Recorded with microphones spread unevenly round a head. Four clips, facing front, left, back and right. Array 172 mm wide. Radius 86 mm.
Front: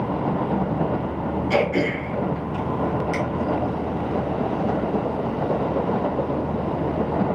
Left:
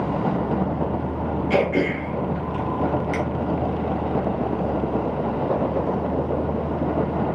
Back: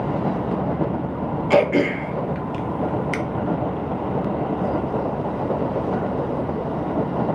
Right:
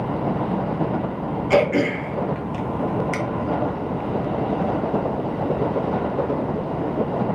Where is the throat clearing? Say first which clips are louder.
Right 3 dB, back 5 dB; 150° right, 0.8 m.